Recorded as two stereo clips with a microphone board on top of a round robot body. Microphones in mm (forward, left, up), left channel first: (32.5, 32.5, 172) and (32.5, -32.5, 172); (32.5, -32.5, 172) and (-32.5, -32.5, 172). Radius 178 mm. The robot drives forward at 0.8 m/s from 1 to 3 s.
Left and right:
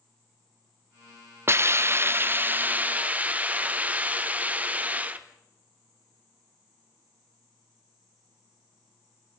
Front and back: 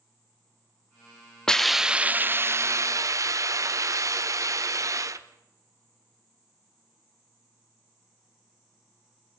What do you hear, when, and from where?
1.5 s a hiss: 75° right, 1.0 m; by 5.3 s 155° right, 1.4 m